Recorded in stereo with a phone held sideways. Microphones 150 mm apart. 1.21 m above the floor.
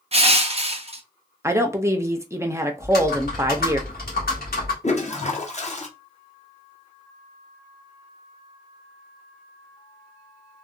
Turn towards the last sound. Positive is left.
turn(degrees=50)  # may be behind; listen again after turning